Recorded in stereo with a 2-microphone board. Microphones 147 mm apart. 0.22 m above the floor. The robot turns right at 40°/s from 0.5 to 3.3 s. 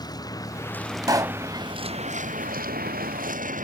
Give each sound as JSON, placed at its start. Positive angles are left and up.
{"t": 0.0, "sound": "a vehicle", "side_deg": 25}
{"t": 1.0, "sound": "a pop", "side_deg": -25}